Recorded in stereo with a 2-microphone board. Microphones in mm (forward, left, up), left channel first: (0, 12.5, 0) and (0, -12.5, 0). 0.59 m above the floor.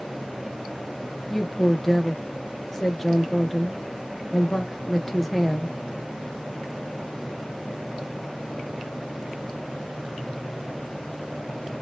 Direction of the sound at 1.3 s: 10° left (ahead or behind).